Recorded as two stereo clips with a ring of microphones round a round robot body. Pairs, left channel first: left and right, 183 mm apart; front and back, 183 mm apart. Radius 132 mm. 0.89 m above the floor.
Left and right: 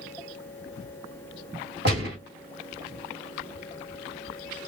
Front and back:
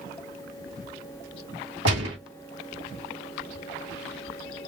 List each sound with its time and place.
1.9 s a gunshot: 140° right, 1.3 m